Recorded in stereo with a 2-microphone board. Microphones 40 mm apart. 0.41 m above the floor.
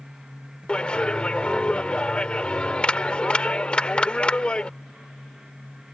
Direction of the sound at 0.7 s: 25° left (ahead or behind).